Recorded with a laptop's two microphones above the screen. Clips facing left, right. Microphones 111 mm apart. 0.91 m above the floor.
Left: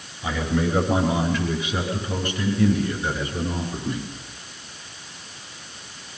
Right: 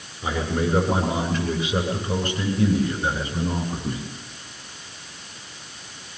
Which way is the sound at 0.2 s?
45° right (ahead or behind).